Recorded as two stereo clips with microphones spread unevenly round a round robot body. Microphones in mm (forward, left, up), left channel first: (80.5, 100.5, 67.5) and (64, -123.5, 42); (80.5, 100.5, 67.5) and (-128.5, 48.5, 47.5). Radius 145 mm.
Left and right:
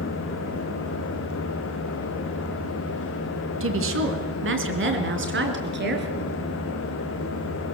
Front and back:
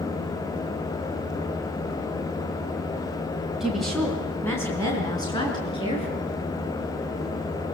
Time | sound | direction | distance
3.6 | a woman speaking | 80° right | 3.5 m